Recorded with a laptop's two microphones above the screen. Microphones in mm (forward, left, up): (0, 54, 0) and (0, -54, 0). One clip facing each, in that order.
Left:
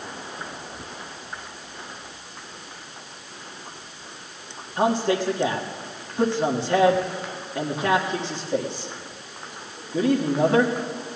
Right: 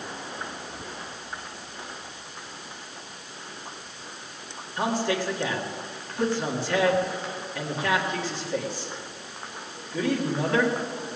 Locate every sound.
4.8 s a man speaking: 25° left (ahead or behind), 1.8 m